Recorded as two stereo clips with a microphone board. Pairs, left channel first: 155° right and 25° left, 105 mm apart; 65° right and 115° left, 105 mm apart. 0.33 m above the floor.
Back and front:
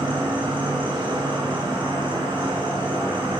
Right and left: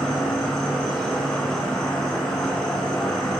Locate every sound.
0.0 s an insect: 10° left, 1.0 m